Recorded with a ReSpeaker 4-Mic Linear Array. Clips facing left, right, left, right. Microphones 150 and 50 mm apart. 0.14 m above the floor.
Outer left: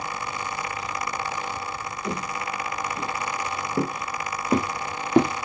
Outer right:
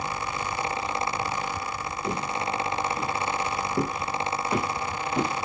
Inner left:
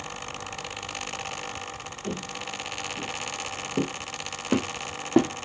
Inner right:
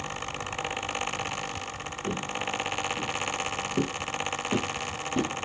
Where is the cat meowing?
I don't hear a cat meowing.